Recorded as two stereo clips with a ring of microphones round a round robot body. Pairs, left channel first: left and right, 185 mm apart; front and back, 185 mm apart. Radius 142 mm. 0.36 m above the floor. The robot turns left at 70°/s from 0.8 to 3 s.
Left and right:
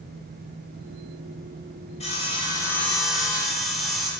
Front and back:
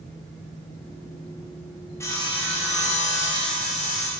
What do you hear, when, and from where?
2.0 s sawing: 70° left, 0.6 m; by 4.1 s straight ahead, 0.6 m